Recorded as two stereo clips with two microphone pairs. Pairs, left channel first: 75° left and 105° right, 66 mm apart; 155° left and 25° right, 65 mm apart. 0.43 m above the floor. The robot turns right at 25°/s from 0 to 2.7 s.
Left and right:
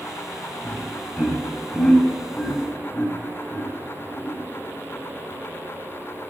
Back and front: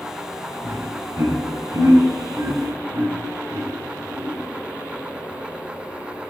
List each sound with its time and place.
0.6 s laughter: 45° right, 3 m; by 4.4 s 5° left, 3 m